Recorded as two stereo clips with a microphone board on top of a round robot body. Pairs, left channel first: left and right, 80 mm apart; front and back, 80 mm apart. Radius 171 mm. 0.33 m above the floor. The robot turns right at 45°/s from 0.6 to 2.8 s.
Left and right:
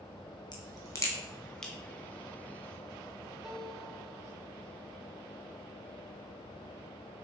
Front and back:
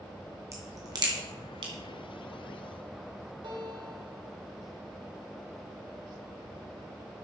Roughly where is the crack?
Behind left.